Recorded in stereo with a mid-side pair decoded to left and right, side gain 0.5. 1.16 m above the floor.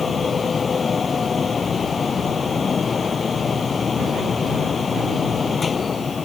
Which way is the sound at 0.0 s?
35° left.